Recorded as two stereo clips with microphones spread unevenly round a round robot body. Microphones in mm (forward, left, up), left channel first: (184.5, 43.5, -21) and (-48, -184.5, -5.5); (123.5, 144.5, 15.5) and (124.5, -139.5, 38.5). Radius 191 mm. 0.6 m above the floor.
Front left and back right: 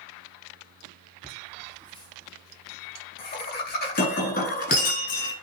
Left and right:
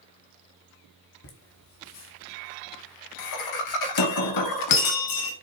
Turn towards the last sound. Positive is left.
turn(degrees=115)